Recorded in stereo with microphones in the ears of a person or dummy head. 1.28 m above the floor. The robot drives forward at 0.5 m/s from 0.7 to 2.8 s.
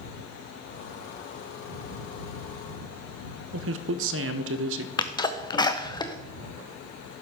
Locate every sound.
3.5 s a man speaking: 75° right (ahead or behind), 0.6 m
5.0 s a sneeze: 25° left (ahead or behind), 0.7 m